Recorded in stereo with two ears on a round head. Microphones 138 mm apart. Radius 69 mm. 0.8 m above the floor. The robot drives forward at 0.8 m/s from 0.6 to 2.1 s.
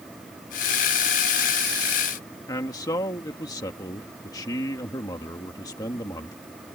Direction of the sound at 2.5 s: 25° left (ahead or behind).